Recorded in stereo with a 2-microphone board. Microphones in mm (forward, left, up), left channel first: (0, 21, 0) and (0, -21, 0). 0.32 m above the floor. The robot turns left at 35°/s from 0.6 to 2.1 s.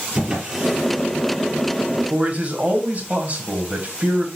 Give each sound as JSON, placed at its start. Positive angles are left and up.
{"t": 0.1, "sound": "a drawer", "side_deg": -15, "distance_m": 4.5}
{"t": 2.1, "sound": "a man speaking", "side_deg": -35, "distance_m": 1.6}